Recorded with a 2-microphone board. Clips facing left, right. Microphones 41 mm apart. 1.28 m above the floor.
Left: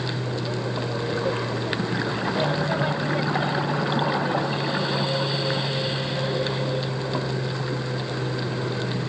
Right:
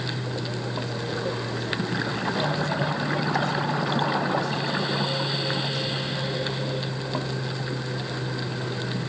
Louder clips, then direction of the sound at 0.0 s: Left 2 dB; 25° left (ahead or behind).